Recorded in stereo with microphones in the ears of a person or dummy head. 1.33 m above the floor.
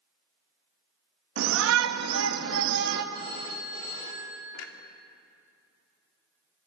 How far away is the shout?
About 1.8 m.